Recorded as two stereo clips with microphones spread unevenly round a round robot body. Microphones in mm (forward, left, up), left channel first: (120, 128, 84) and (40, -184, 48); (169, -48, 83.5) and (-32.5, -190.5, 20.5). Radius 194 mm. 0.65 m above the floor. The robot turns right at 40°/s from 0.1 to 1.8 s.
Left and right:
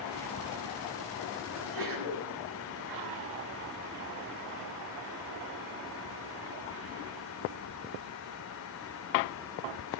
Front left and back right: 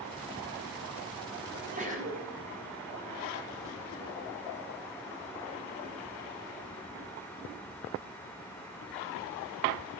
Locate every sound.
1.5 s a sneeze: 100° right, 6.5 m; by 2.2 s 85° right, 6.5 m